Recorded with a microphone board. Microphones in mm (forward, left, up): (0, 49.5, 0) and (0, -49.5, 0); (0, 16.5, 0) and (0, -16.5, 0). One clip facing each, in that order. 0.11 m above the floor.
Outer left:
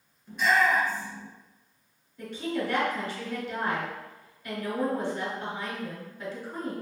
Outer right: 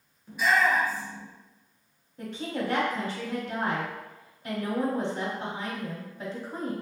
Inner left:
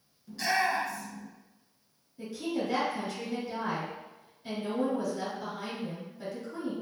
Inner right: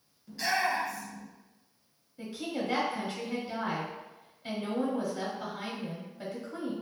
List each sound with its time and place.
0.3 s a shout: 5° right (ahead or behind), 1.3 m
2.2 s a woman speaking: 25° right (ahead or behind), 1.1 m